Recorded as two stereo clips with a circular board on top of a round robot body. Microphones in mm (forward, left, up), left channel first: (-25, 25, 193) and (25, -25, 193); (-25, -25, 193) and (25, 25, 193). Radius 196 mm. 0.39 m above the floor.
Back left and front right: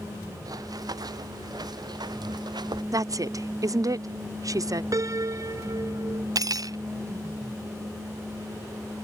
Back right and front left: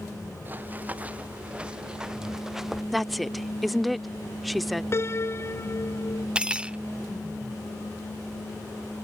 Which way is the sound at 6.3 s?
30° right.